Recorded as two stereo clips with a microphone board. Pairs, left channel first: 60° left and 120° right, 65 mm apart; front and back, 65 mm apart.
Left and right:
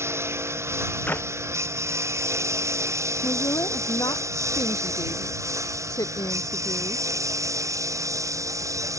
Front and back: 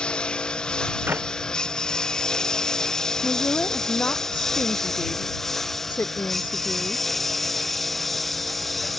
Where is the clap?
125° left.